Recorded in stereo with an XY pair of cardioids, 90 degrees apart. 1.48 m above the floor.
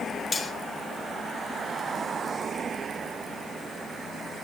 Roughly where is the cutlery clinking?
Ahead left.